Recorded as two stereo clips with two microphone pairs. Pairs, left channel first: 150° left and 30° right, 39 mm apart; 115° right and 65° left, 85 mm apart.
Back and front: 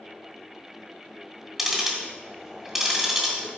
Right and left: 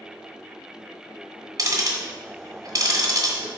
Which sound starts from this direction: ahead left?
Ticking, at 1.6 s.